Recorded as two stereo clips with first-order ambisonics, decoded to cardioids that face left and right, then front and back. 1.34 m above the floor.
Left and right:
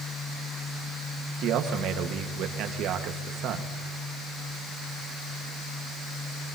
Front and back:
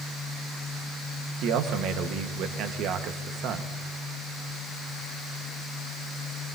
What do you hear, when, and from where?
1.4 s a man speaking: 135° right, 1.3 m